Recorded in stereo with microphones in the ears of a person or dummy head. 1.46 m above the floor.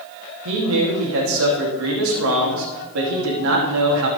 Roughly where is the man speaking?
Right.